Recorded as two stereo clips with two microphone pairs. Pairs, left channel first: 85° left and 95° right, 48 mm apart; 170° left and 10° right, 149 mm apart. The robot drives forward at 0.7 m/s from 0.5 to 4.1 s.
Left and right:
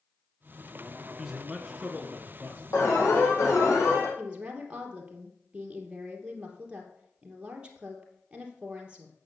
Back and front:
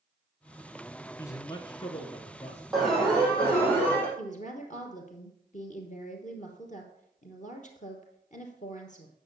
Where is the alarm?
80° left, 4.5 m; by 4.1 s 90° left, 4.5 m.